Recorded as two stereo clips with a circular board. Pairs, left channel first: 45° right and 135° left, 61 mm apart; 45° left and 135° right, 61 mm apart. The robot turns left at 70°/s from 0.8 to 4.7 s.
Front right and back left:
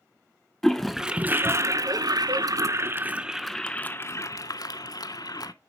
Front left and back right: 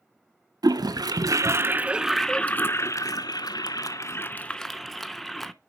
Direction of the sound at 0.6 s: 130° right.